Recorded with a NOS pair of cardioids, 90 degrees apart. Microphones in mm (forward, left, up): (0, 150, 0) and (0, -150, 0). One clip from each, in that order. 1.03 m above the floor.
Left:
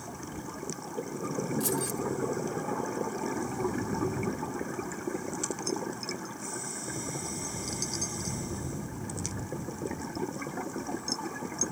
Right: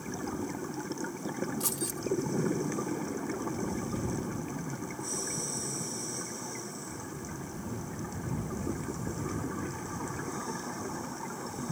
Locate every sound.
1.6 s keys jangling: straight ahead